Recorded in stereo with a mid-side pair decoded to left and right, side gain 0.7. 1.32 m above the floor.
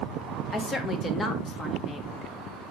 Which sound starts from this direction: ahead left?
A woman speaking, at 0.5 s.